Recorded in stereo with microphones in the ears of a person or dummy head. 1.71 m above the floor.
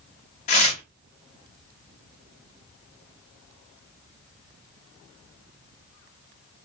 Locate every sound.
0.5 s tearing paper: 35° left (ahead or behind), 1.2 m